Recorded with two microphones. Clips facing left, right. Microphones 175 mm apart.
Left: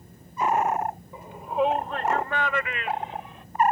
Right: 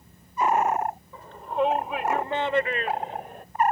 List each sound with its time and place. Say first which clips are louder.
1.1 s a shout: left 1 dB; 15° left (ahead or behind); by 3.5 s 50° right (ahead or behind)